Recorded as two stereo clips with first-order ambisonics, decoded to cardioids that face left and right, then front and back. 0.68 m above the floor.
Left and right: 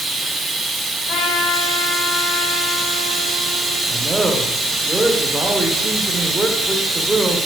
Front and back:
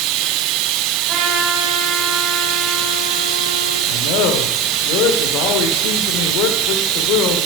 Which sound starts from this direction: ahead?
A man speaking, at 3.9 s.